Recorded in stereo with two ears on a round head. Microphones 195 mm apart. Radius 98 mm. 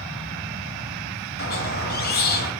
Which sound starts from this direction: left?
A squeak, at 1.4 s.